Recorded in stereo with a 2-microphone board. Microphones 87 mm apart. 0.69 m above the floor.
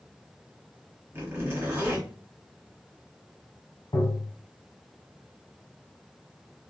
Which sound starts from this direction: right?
A zipper, at 1.1 s.